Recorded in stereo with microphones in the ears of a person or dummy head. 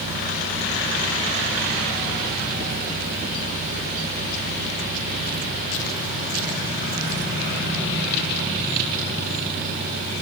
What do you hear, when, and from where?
Only background noise.